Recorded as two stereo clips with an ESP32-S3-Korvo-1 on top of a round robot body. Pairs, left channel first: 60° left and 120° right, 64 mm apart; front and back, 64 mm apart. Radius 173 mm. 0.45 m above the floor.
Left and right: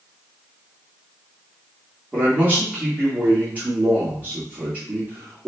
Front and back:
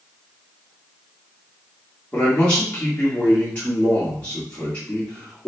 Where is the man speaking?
60° right, 1.6 m.